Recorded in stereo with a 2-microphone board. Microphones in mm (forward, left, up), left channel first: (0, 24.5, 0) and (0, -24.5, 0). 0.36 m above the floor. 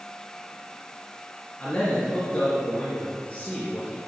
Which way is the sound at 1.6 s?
30° left (ahead or behind).